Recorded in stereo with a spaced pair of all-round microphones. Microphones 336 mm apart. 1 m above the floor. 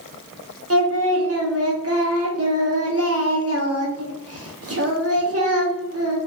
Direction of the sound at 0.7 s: 45° right (ahead or behind).